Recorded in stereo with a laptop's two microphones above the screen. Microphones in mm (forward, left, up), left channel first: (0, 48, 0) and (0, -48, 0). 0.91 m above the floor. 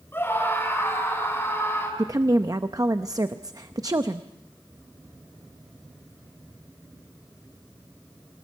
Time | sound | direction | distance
0.1 | a scream | 25° left (ahead or behind) | 6 m
2.0 | a woman speaking | 40° right (ahead or behind) | 0.6 m